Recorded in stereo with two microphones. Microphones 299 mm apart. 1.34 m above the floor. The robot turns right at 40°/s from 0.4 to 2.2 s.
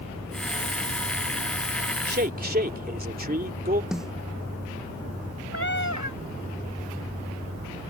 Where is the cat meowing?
70° right (ahead or behind).